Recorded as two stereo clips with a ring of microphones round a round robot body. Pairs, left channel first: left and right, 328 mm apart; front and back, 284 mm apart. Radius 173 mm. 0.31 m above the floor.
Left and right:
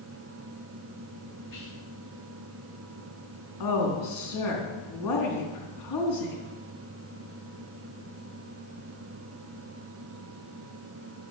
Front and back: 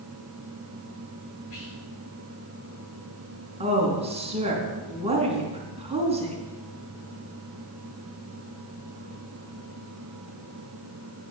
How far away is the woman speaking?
About 3.5 m.